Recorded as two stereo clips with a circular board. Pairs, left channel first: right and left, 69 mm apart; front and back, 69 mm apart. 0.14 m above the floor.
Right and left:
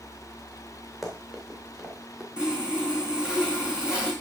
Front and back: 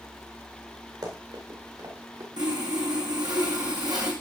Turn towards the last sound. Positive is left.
turn(degrees=165)